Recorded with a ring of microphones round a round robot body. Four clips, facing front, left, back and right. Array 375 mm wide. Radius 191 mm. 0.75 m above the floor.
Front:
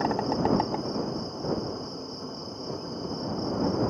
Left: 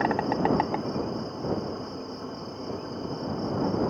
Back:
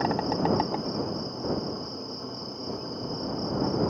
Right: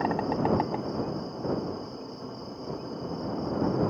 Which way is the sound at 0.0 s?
100° left.